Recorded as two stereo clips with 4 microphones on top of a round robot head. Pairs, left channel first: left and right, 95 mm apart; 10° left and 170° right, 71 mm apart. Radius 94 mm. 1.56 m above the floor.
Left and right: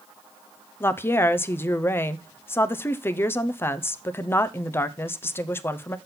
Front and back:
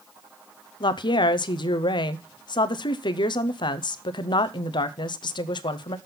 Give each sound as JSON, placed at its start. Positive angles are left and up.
{"t": 0.8, "sound": "a woman speaking", "azimuth_deg": 20, "distance_m": 0.6}